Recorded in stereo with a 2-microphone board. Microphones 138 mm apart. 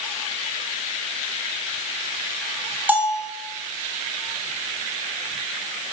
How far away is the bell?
About 0.7 m.